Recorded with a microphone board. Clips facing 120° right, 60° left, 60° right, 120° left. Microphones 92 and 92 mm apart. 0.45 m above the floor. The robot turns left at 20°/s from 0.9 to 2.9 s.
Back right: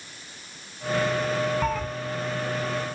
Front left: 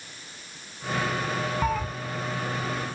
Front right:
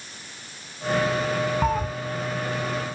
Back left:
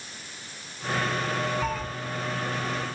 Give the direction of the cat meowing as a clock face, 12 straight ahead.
1 o'clock.